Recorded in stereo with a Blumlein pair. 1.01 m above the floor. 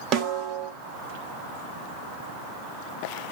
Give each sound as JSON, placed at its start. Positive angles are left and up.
{"t": 0.1, "sound": "a snare drum", "azimuth_deg": -40, "distance_m": 0.9}